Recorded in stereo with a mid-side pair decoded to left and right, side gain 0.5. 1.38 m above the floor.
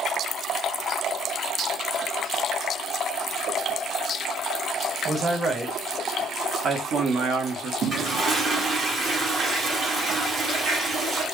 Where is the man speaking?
25° right, 1.8 m; by 7.7 s 70° right, 1.3 m.